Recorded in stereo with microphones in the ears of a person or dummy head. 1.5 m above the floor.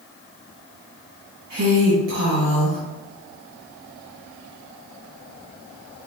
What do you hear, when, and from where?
1.5 s a woman speaking: 60° right (ahead or behind), 1.3 m